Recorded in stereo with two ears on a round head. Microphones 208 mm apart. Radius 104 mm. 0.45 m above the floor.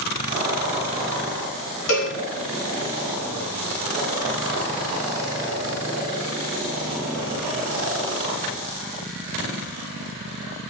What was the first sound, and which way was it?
A cowbell, 60° left (ahead or behind).